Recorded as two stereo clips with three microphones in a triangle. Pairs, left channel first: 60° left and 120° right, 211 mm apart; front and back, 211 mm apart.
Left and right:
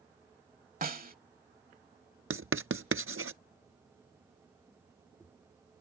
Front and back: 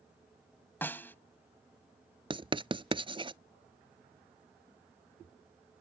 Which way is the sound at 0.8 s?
80° right.